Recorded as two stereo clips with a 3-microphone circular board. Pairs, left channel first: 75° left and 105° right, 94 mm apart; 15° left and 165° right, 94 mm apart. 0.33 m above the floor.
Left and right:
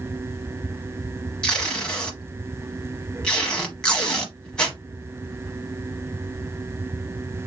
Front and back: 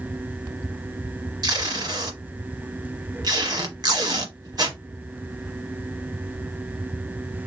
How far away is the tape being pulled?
About 1.0 m.